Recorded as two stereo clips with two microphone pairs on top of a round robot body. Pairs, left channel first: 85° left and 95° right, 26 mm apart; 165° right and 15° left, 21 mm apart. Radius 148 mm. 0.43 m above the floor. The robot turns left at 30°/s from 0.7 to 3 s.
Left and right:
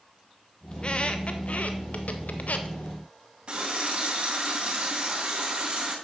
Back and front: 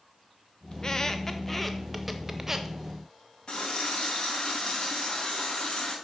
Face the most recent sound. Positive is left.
turn(degrees=-135)